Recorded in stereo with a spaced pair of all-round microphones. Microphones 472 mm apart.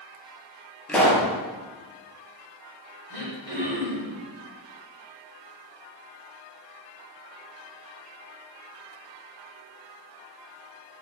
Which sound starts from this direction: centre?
A pop, at 0.9 s.